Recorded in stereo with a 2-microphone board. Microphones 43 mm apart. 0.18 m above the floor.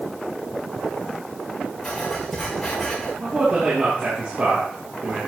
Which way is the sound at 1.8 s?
5° left (ahead or behind).